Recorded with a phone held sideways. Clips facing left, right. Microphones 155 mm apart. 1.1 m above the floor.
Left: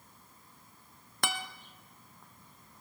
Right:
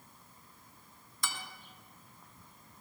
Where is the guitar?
65° left (ahead or behind), 0.8 m.